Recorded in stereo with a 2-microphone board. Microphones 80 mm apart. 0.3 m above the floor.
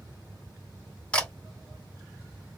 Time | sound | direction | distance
1.1 | a camera shutter | 15° left (ahead or behind) | 1.6 m